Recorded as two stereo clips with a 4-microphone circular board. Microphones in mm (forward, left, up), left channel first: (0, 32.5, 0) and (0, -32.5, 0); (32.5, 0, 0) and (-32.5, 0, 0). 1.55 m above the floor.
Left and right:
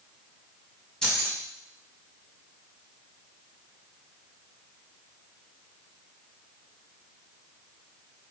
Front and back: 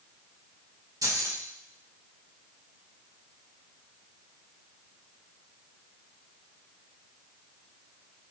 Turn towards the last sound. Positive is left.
turn(degrees=165)